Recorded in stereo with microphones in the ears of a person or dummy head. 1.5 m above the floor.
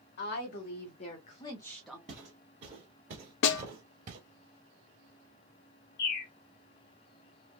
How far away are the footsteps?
About 1.5 m.